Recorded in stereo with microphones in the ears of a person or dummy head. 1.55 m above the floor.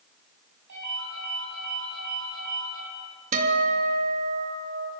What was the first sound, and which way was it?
A ringtone, 55° right (ahead or behind).